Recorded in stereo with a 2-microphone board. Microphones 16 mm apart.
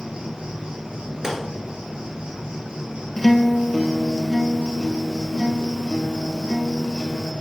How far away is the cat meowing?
I don't hear a cat meowing.